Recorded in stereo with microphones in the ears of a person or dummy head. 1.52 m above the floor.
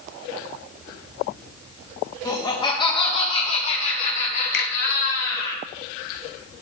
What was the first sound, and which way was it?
Laughter, 15° left (ahead or behind).